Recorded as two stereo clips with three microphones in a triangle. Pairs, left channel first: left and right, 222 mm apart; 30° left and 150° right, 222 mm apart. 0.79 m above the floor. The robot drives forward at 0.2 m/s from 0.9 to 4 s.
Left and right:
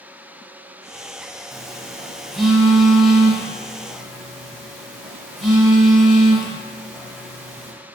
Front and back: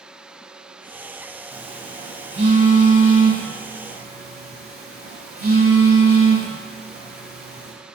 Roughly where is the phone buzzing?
Behind.